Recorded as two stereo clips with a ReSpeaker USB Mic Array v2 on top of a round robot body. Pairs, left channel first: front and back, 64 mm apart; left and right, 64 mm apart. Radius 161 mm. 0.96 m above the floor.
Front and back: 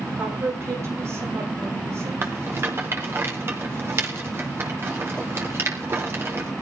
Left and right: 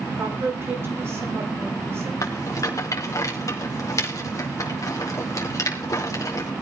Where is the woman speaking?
135° right, 6.5 m.